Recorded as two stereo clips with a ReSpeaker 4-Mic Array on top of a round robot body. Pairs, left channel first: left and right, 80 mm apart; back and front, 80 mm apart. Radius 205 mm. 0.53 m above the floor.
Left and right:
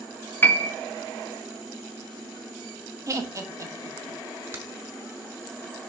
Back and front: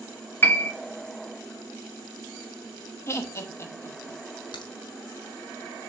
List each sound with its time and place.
0.4 s a piano: 135° left, 1.5 m
3.1 s laughter: 130° right, 1.7 m
4.5 s a crack: 155° right, 1.2 m